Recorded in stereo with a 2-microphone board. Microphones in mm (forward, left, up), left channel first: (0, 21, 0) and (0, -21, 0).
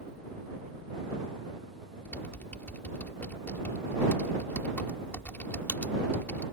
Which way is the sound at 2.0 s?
50° left (ahead or behind).